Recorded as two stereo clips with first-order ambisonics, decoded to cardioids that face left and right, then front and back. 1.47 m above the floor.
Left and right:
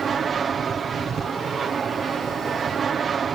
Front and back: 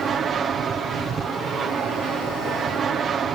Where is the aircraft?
140° right.